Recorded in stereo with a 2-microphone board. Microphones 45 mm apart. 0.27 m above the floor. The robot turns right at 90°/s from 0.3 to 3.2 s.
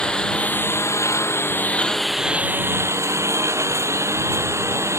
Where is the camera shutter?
I don't hear a camera shutter.